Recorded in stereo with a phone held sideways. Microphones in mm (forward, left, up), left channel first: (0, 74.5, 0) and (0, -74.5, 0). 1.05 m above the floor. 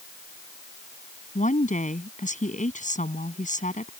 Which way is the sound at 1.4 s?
55° left (ahead or behind).